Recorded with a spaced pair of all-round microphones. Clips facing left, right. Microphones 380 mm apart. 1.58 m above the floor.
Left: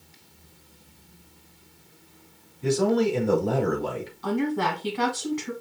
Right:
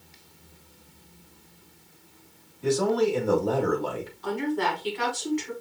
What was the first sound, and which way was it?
A man speaking, 40° left (ahead or behind).